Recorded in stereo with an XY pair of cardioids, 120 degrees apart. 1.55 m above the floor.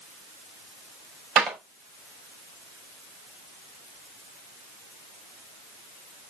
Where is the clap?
55° right, 4.5 m.